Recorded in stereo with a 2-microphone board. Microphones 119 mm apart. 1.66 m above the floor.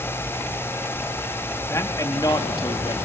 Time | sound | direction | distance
1.7 | a man speaking | 25° left (ahead or behind) | 2.5 m